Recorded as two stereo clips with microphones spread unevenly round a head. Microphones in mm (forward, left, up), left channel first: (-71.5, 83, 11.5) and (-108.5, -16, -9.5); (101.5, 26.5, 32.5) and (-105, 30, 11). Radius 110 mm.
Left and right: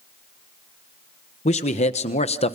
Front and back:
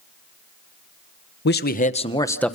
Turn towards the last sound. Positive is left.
turn(degrees=85)